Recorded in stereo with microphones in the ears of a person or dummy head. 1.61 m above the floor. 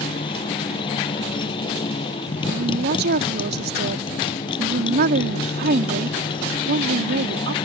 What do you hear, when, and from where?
0.0 s a motorcycle: 30° left (ahead or behind)
2.5 s a woman speaking: 60° right (ahead or behind)